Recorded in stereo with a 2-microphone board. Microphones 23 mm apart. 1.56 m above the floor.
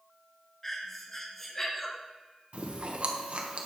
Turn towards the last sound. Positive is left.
turn(degrees=-60)  # may be behind; listen again after turning